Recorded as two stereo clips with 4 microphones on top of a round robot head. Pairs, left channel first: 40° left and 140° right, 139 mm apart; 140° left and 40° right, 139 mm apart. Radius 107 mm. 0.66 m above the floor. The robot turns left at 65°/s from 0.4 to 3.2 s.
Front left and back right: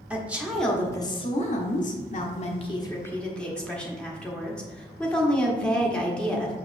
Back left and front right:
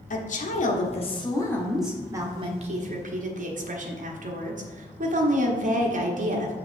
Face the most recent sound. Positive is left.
turn(degrees=-40)